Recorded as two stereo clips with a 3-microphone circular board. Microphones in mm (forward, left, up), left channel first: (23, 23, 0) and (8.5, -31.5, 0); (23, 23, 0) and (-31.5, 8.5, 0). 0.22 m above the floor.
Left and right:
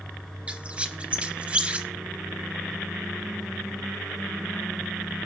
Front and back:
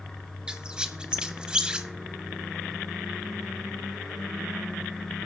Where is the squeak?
120° right, 0.7 m.